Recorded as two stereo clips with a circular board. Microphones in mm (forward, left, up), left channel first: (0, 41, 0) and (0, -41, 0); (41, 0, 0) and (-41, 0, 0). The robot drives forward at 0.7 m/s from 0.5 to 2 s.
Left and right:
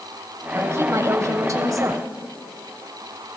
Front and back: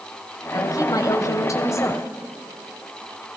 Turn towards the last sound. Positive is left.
turn(degrees=-50)